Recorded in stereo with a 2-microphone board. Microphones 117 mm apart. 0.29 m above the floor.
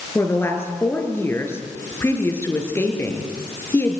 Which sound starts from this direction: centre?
A woman speaking, at 0.1 s.